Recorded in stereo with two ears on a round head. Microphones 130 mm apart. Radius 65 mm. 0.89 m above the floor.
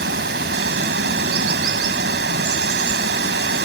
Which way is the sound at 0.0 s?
85° right.